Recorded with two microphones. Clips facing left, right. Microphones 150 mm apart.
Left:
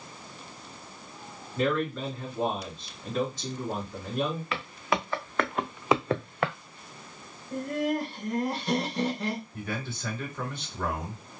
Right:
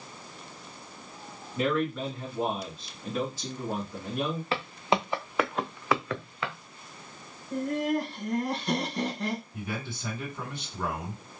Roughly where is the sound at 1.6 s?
Centre.